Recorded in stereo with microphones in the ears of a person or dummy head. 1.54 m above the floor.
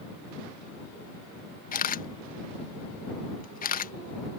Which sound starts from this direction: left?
A camera shutter, at 1.7 s.